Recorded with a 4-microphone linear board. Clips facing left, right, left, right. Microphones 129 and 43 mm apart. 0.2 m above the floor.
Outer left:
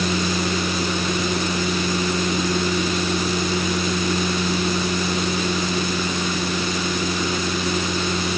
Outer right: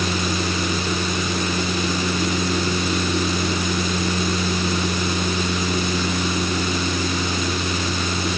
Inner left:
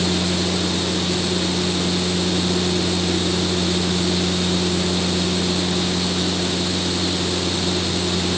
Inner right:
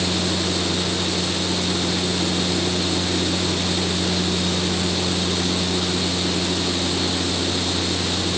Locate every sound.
Only background noise.